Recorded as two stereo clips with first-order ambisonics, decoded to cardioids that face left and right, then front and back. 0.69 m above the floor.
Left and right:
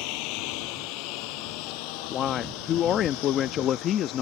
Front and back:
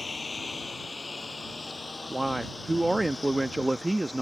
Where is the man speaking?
95° left.